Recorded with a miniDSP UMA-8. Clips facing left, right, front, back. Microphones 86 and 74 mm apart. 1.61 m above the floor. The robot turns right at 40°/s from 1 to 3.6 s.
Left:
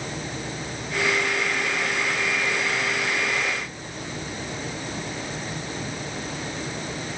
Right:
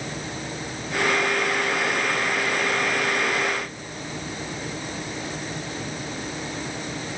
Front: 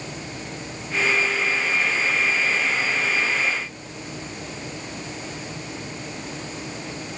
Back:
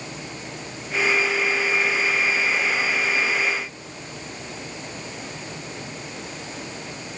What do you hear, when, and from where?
Only background noise.